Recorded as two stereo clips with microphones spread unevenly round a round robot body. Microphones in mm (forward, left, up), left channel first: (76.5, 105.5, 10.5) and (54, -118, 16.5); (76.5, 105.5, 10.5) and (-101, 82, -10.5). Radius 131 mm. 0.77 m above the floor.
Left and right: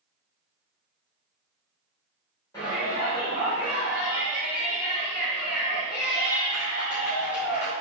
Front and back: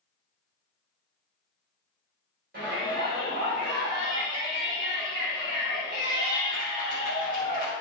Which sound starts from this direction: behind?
A shout, at 2.5 s.